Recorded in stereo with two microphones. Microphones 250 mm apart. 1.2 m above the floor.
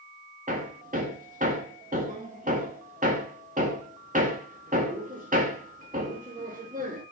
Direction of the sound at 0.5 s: 30° right (ahead or behind).